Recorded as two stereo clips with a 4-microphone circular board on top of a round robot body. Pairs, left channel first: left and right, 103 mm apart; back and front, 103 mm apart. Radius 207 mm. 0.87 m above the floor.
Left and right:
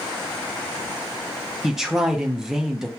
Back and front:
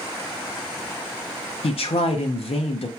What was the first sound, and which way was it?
A man speaking, 175° right.